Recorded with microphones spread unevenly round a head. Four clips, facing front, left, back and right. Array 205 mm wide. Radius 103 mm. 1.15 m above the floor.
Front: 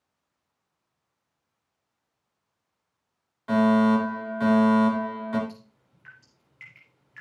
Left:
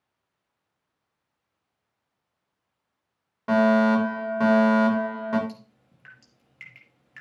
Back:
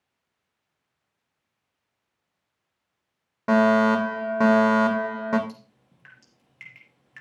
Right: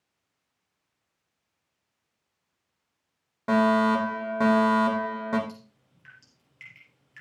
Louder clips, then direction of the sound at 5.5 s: Left 2 dB, back 2 dB; 145° left.